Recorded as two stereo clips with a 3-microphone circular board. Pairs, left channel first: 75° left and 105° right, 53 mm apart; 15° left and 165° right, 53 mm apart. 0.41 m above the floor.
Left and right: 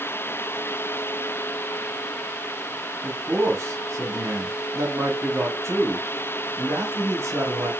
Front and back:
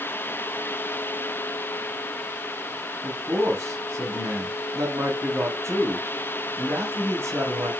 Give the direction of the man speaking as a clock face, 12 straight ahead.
4 o'clock.